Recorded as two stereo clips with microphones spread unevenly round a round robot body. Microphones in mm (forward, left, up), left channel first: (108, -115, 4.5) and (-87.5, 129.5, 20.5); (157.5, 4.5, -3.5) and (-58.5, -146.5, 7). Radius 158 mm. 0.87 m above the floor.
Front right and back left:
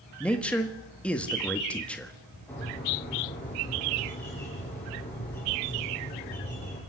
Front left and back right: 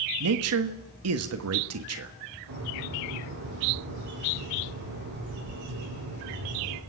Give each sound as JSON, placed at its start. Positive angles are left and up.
{"t": 0.2, "sound": "a man speaking", "azimuth_deg": -135, "distance_m": 1.5}
{"t": 2.5, "sound": "a bird", "azimuth_deg": -135, "distance_m": 10.0}